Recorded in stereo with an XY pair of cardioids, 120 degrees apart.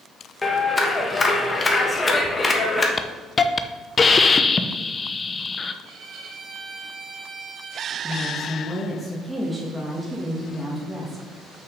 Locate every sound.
0.4 s a clap: 25° left, 1.3 m
3.0 s a hiss: 25° left, 0.6 m
5.8 s a violin: 50° right, 1.4 m
8.0 s a woman speaking: straight ahead, 1.7 m